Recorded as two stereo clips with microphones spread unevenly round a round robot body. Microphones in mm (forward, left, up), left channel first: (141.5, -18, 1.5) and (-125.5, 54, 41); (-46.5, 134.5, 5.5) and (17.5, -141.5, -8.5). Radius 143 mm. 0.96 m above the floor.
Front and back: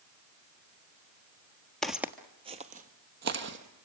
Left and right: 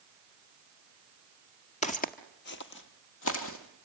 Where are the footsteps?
85° left, 1.0 m; by 3.9 s 135° left, 1.8 m.